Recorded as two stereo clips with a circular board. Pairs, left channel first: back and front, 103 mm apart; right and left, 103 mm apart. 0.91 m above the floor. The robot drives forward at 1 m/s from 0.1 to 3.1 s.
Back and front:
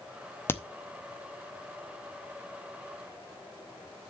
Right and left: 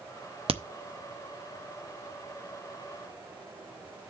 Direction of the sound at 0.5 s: 110° left.